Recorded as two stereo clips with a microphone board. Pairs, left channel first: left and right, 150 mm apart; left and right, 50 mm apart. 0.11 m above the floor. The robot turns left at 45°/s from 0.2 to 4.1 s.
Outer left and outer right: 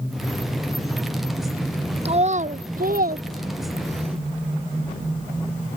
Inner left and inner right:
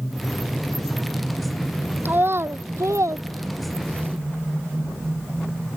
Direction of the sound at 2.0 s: 40° right (ahead or behind).